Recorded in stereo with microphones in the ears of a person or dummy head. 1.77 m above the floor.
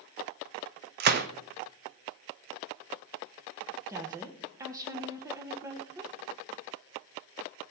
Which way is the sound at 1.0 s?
50° right (ahead or behind).